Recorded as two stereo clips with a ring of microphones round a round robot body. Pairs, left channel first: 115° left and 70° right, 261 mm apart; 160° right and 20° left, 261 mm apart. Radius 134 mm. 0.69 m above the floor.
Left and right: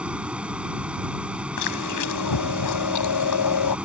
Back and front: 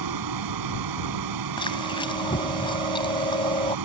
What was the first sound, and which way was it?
A vehicle, 20° left.